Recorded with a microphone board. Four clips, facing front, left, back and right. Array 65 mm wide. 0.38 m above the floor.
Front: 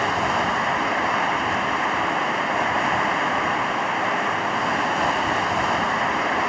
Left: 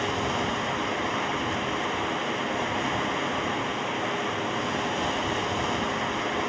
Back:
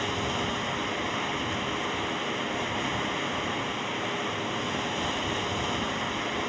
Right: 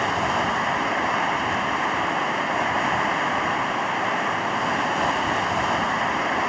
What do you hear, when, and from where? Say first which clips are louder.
0.0 s running water: right 5 dB, front 9 dB; 30° right, 1.0 m